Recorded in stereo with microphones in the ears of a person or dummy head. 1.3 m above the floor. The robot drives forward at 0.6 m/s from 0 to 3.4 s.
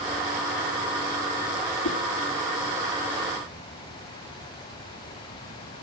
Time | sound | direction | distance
1.8 | a whoosh | 75° left (ahead or behind) | 1.5 m